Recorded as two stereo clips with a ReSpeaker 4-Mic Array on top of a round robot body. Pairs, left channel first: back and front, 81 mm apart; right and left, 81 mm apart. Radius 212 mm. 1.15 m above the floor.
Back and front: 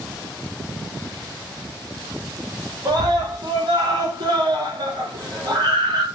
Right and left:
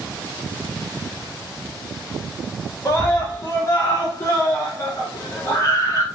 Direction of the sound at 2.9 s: 35° right.